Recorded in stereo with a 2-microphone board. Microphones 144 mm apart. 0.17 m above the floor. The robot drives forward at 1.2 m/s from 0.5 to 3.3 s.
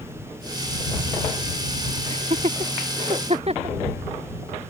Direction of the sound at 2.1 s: 45° right (ahead or behind).